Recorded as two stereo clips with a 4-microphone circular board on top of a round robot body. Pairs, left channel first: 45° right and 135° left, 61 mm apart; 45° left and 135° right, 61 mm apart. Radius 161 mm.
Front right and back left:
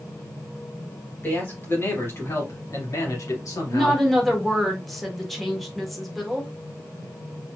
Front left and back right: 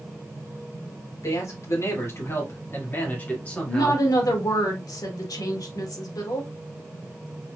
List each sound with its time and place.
1.2 s a man speaking: 15° left, 3 m; by 4.0 s 30° right, 2.5 m
3.7 s a woman speaking: 45° left, 1.9 m